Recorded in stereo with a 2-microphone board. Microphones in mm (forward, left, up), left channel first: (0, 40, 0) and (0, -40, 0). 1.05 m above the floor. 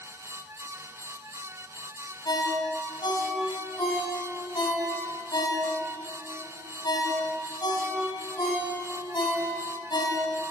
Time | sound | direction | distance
2.2 | a ringtone | 65° left (ahead or behind) | 4.5 m